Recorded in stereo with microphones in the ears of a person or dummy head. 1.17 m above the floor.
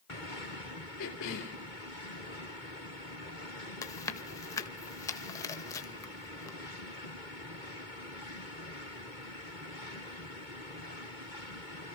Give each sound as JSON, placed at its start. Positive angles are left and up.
{"t": 1.0, "sound": "a cough", "side_deg": 65, "distance_m": 2.5}
{"t": 3.8, "sound": "chewing", "side_deg": 15, "distance_m": 1.8}